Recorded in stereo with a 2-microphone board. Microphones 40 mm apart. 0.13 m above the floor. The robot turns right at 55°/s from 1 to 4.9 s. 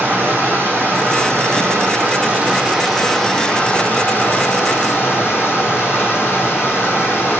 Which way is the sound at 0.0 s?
115° right.